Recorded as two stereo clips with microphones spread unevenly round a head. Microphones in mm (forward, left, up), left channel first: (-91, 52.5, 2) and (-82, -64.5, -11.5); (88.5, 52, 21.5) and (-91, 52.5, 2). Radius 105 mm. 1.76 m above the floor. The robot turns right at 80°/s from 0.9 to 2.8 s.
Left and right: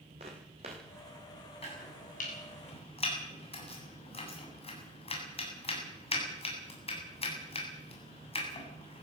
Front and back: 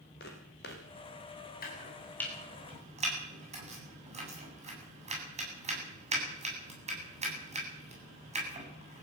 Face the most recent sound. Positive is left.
turn(degrees=125)